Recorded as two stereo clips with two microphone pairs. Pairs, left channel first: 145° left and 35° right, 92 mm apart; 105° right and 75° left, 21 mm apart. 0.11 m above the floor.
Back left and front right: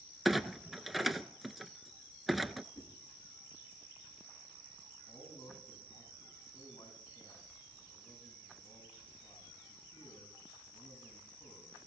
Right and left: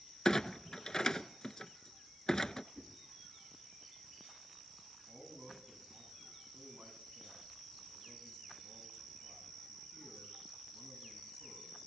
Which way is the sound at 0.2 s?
120° right.